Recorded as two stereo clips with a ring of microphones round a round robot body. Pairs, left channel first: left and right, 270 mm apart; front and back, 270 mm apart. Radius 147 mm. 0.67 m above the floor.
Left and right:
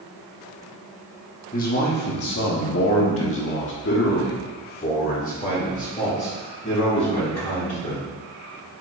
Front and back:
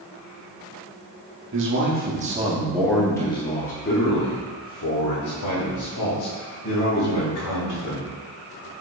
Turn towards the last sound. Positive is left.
turn(degrees=20)